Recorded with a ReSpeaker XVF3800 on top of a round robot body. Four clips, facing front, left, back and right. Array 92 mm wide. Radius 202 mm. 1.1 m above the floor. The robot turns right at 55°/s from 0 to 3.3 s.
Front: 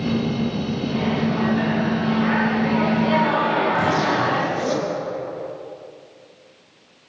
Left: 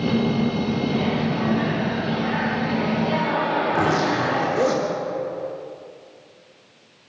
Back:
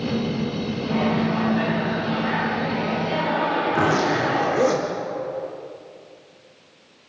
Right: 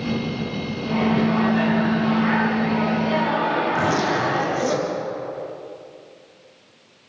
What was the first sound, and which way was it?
A microwave, 130° right.